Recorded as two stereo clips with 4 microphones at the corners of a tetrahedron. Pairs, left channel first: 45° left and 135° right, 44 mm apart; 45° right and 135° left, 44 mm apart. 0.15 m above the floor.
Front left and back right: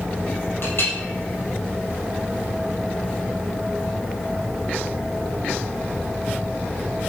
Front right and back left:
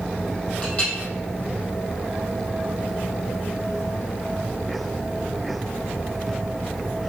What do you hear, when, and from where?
0.6 s a clink: 15° left, 4 m